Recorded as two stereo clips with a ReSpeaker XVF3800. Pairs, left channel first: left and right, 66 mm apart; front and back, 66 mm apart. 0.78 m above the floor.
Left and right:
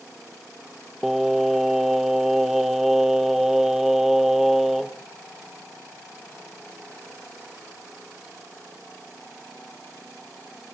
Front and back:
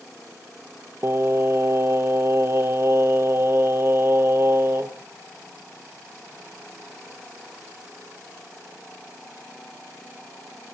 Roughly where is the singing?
Behind.